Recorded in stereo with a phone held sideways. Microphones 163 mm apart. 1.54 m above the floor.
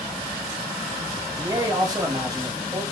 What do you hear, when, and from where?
1.3 s a man speaking: 25° right (ahead or behind), 0.9 m